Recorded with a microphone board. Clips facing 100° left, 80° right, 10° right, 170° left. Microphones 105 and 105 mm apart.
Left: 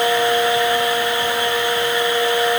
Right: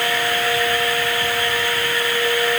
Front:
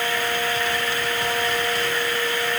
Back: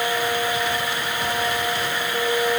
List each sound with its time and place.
Only background noise.